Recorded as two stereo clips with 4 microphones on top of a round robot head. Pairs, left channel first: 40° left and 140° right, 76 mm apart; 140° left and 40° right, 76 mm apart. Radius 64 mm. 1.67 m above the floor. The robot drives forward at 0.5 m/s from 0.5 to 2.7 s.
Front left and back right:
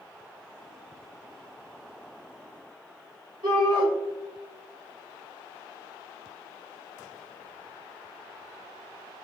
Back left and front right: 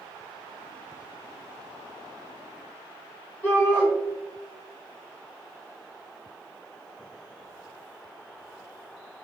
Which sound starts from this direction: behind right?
A shout, at 3.4 s.